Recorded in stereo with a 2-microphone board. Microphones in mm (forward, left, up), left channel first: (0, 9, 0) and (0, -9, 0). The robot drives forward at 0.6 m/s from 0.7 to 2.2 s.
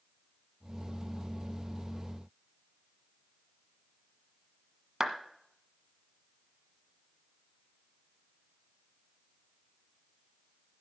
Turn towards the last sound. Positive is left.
turn(degrees=-25)  # may be behind; listen again after turning